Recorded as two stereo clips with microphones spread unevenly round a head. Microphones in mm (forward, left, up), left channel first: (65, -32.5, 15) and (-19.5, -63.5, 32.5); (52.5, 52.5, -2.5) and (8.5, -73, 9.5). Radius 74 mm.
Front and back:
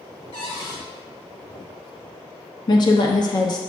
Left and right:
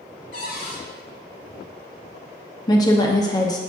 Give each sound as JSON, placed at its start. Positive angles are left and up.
{"t": 0.3, "sound": "a cupboard door", "azimuth_deg": 60, "distance_m": 2.5}
{"t": 2.7, "sound": "a woman speaking", "azimuth_deg": 15, "distance_m": 0.9}